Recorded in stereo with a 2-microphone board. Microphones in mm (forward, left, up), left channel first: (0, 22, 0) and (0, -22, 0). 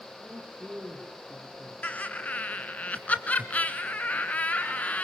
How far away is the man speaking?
About 4.5 m.